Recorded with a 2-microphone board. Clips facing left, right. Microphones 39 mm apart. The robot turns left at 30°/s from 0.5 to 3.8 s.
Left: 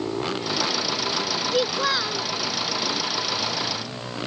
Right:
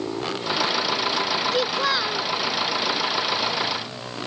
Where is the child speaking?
5° left (ahead or behind); by 2.3 s 15° right (ahead or behind).